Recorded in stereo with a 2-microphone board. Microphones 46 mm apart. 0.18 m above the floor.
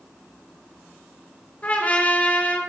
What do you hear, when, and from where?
1.6 s a trumpet: 35° left (ahead or behind), 3.5 m